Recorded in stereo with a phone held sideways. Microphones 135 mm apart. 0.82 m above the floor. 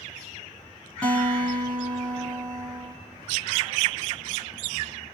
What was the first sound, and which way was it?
A guitar, 10° left (ahead or behind).